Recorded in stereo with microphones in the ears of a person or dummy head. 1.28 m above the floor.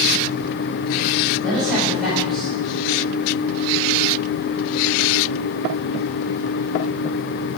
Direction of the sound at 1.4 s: 5° left (ahead or behind).